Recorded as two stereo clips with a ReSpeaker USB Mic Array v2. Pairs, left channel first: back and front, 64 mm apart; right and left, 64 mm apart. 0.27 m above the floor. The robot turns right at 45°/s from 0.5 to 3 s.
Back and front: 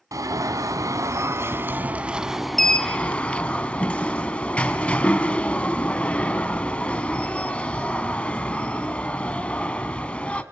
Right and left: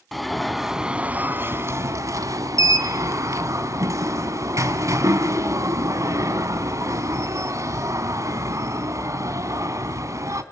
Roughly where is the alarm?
Ahead.